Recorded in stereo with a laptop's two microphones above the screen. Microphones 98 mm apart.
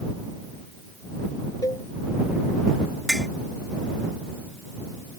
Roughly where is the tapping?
Centre.